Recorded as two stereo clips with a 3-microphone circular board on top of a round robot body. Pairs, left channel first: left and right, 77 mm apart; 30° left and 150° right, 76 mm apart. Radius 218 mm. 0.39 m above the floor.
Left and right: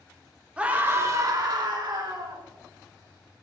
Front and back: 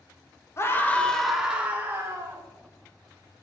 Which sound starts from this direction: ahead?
A scream, at 0.6 s.